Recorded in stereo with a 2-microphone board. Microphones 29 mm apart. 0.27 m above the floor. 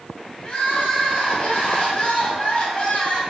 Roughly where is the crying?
Left.